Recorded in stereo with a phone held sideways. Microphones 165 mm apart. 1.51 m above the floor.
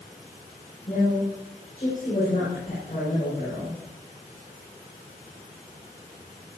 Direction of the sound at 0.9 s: 50° left (ahead or behind).